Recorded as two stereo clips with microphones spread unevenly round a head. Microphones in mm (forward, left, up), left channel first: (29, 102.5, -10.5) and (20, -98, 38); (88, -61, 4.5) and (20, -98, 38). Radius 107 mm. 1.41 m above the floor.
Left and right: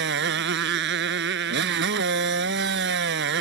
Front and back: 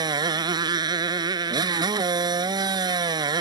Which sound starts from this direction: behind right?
A motorcycle, at 0.0 s.